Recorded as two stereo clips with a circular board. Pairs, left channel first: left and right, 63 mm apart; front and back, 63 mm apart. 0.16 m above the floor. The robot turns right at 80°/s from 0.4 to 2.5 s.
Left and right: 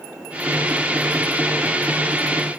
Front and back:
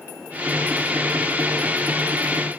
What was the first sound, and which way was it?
Only background noise.